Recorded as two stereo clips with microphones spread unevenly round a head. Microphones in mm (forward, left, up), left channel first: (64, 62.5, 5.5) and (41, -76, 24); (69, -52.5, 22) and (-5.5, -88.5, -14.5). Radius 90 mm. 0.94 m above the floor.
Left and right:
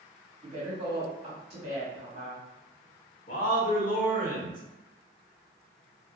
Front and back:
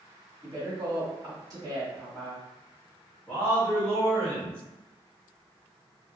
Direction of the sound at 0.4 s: 155° right.